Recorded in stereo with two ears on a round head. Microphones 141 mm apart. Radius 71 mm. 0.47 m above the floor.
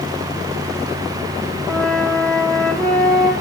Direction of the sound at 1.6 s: 5° left (ahead or behind).